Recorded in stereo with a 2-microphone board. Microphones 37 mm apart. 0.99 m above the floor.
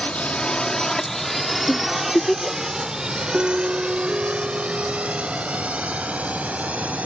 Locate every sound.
0.0 s a drone: 30° left (ahead or behind); by 7.1 s 40° right (ahead or behind)
1.7 s a giggle: 20° left (ahead or behind)
3.3 s a piano: 30° right (ahead or behind)